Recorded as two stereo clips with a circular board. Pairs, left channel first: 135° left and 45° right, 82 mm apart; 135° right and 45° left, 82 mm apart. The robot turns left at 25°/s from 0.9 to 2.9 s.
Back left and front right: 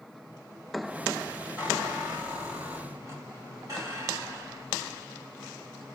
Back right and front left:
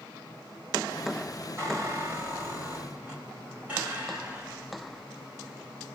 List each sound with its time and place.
1.6 s a squeak: 10° left, 2.0 m; by 5.0 s 25° right, 2.0 m